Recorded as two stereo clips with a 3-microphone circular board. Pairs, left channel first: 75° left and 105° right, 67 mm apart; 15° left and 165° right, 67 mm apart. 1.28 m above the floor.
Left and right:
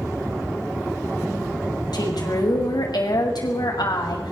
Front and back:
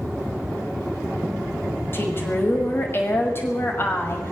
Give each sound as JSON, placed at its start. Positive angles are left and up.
{"t": 1.9, "sound": "a woman speaking", "azimuth_deg": 70, "distance_m": 6.0}